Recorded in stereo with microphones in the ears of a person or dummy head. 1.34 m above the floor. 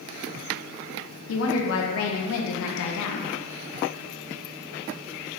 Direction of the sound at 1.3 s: 75° left (ahead or behind).